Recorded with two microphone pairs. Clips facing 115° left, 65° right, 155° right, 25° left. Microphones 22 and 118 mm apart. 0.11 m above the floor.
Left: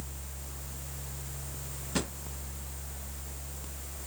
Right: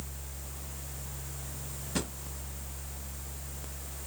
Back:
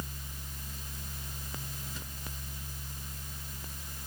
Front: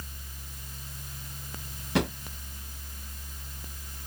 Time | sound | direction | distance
1.9 | a drawer | 35° left | ?